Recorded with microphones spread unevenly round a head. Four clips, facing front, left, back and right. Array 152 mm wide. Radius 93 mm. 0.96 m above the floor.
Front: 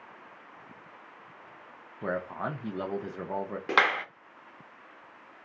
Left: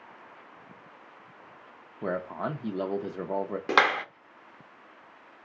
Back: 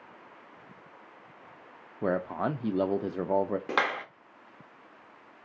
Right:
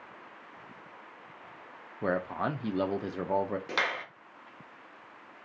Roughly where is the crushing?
I don't hear crushing.